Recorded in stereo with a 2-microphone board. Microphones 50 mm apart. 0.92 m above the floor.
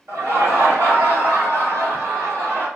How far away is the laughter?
About 1.7 m.